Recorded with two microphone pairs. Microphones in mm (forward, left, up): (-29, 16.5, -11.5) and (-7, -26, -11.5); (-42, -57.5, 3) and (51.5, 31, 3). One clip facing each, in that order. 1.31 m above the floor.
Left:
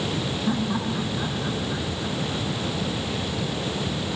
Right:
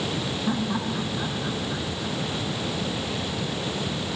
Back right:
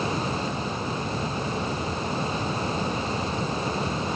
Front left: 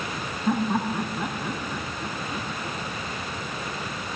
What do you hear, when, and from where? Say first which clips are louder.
0.5 s laughter: left 1 dB, front left 5 dB; 25° left; by 2.8 s 35° left